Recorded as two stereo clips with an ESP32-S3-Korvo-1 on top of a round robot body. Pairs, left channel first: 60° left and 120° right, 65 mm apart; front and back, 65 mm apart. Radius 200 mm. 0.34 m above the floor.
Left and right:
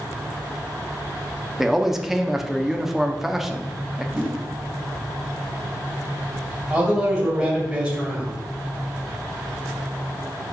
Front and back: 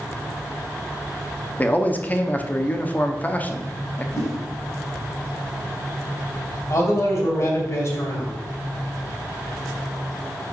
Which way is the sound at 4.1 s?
40° right.